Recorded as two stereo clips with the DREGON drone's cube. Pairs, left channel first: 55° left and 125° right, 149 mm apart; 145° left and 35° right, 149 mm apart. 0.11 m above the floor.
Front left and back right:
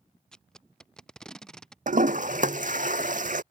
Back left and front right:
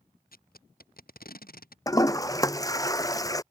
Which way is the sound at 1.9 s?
150° right.